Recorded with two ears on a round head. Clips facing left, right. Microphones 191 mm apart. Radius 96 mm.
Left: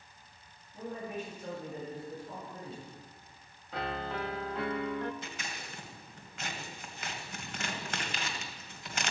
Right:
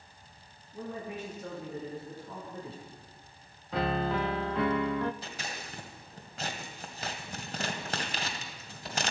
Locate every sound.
0.7 s a man speaking: 60° right (ahead or behind), 7 m
3.7 s a piano: 60° right (ahead or behind), 0.5 m
5.2 s scissors: 30° right (ahead or behind), 1.9 m